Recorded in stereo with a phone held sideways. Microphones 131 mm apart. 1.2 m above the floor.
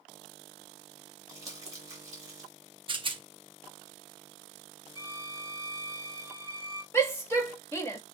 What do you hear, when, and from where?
1.3 s crumpling: 25° right (ahead or behind), 2.5 m
2.9 s a rattle: 40° right (ahead or behind), 0.7 m
5.0 s a violin: 20° right (ahead or behind), 4.5 m
6.9 s a shout: 20° left (ahead or behind), 1.6 m